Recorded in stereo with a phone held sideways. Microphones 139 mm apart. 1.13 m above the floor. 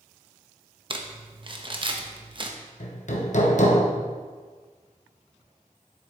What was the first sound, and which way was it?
Crumpling, 35° right (ahead or behind).